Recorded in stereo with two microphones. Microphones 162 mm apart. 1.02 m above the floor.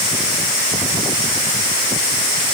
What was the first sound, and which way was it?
Only background noise.